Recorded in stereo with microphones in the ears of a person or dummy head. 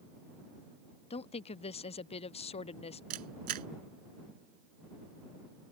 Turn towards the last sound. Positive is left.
turn(degrees=-50)  # may be behind; listen again after turning